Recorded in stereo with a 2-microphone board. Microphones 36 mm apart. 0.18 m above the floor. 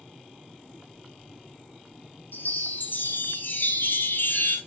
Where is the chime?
65° left (ahead or behind), 1.5 m.